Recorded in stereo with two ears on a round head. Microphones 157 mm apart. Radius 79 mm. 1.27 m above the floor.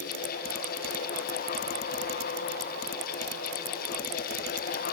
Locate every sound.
Only background noise.